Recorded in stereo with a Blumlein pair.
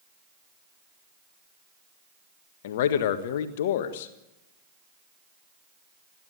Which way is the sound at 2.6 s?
55° left.